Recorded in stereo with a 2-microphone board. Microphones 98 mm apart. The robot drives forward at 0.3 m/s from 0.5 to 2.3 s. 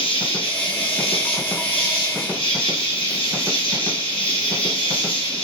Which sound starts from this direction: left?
An insect, at 0.0 s.